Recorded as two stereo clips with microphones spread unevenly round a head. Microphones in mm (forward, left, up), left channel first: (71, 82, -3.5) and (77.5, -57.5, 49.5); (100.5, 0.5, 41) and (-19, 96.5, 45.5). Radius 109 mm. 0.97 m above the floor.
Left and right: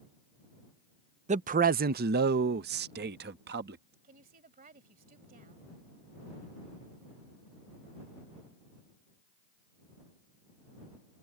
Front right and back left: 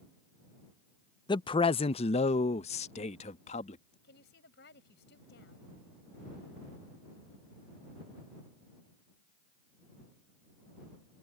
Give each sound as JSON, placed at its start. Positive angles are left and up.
{"t": 1.3, "sound": "a man speaking", "azimuth_deg": -60}
{"t": 4.0, "sound": "a woman speaking", "azimuth_deg": -70}